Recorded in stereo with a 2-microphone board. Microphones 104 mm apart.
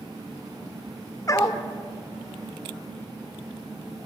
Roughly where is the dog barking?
Left.